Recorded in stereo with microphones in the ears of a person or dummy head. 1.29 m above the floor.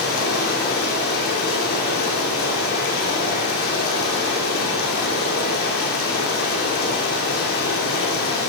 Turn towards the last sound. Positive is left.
turn(degrees=55)  # may be behind; listen again after turning